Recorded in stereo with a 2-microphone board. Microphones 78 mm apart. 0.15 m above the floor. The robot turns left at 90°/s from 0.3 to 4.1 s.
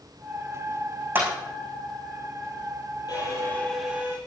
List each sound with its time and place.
1.1 s a clap: 25° right (ahead or behind), 6 m; by 1.3 s 40° right (ahead or behind), 6 m
3.1 s a violin: 65° left, 5 m; by 4.2 s 30° right, 5 m